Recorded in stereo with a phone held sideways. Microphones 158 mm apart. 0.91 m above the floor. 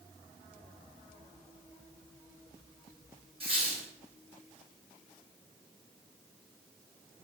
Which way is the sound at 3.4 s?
40° right (ahead or behind).